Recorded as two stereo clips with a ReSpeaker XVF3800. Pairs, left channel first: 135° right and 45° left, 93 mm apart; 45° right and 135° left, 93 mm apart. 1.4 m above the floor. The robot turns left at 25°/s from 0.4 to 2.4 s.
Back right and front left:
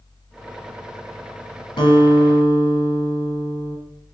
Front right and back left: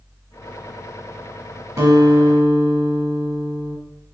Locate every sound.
1.8 s a guitar: 170° right, 1.2 m; by 3.8 s 175° left, 1.2 m